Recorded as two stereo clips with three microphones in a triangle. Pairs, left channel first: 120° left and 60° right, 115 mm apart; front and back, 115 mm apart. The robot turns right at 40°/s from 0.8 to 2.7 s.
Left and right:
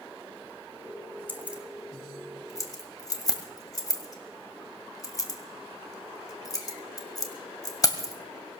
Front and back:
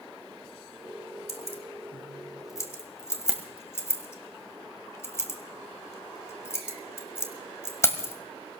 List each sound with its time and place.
1.3 s keys jangling: 10° left, 1.8 m; by 8.1 s 65° left, 1.8 m